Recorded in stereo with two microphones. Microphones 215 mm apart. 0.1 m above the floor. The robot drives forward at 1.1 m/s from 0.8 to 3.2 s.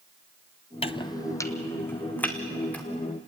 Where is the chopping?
30° left (ahead or behind), 0.6 m; by 2.8 s 5° left (ahead or behind), 2.5 m.